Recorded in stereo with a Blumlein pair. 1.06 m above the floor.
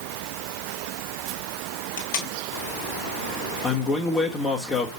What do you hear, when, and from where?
2.0 s tape being pulled: 50° left, 1.7 m
3.6 s a man speaking: 20° left, 1.3 m